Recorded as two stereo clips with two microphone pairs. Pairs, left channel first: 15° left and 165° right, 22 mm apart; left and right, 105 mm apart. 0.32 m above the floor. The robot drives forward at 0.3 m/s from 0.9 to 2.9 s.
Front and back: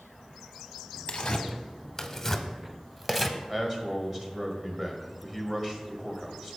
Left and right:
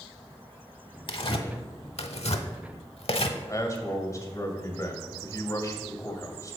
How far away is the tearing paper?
About 0.7 m.